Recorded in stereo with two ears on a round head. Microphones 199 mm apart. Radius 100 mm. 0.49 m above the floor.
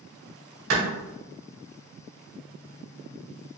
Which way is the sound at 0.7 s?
65° right (ahead or behind).